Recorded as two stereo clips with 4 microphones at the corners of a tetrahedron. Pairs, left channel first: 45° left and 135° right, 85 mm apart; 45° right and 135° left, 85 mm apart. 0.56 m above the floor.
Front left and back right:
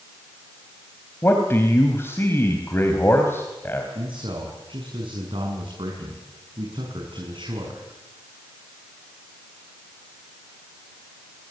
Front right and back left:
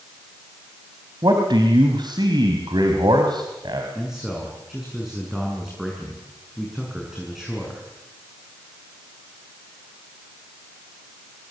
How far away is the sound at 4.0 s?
About 6.5 m.